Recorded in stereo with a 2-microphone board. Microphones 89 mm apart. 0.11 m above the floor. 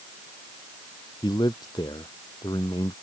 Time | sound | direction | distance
1.2 | a man speaking | 60° left (ahead or behind) | ?